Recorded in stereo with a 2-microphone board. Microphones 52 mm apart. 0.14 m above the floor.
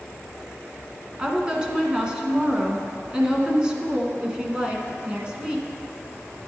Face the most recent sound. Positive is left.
turn(degrees=-15)  # may be behind; listen again after turning